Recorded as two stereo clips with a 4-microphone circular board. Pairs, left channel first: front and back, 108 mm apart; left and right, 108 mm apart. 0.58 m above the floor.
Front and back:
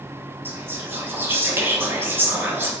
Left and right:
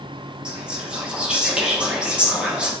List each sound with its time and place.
0.5 s whispering: 155° right, 0.9 m